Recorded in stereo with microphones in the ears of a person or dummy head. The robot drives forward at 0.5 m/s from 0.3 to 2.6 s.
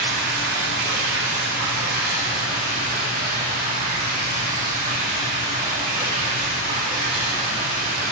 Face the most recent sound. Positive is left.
turn(degrees=-40)  # may be behind; listen again after turning